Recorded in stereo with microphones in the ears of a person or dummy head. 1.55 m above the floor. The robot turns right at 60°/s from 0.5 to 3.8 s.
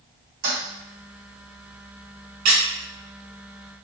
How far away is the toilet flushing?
About 1.5 m.